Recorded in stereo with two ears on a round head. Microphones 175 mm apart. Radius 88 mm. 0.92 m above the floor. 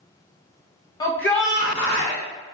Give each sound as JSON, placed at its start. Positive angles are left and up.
{"t": 1.0, "sound": "a shout", "side_deg": 20, "distance_m": 0.7}